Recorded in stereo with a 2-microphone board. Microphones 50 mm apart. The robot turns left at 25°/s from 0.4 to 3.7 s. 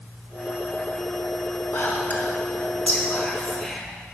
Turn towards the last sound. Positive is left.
turn(degrees=10)  # may be behind; listen again after turning